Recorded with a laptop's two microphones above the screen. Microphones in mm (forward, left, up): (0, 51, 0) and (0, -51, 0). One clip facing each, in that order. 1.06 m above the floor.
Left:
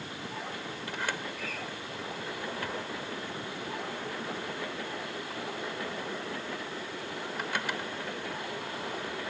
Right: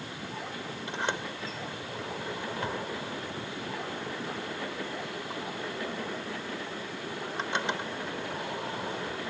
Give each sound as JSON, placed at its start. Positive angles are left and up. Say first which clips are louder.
{"t": 0.9, "sound": "a sliding door", "louder": "right 3 dB", "side_deg": -25}